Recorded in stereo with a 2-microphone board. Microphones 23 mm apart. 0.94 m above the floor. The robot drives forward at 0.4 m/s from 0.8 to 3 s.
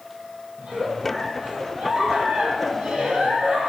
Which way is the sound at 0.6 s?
65° right (ahead or behind).